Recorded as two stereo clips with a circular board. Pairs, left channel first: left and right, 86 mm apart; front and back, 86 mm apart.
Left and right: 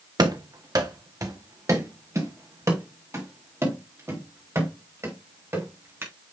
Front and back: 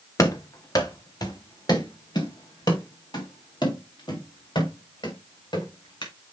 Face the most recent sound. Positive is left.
turn(degrees=-30)